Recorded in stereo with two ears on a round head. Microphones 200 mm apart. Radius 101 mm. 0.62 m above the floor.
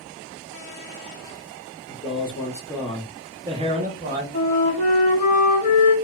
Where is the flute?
35° left (ahead or behind), 1.0 m.